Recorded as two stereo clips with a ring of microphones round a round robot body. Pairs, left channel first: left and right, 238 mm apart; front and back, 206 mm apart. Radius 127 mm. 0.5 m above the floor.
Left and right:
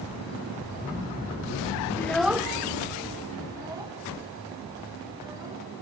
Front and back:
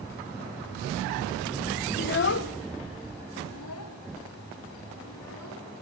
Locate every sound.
2.0 s a child speaking: 15° left, 0.6 m; by 5.8 s 15° right, 5.5 m